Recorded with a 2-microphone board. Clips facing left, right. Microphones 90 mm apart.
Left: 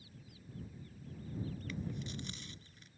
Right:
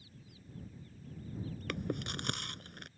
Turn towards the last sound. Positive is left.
turn(degrees=-65)  # may be behind; listen again after turning